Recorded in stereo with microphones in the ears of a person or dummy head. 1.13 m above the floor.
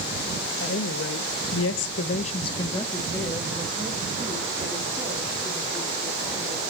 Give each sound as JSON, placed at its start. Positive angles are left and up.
{"t": 0.6, "sound": "a woman speaking", "side_deg": 60, "distance_m": 1.3}